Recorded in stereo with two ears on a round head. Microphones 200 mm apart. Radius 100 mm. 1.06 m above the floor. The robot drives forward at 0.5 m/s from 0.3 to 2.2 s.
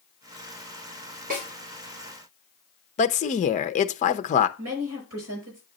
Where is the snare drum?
40° right (ahead or behind), 3.5 m.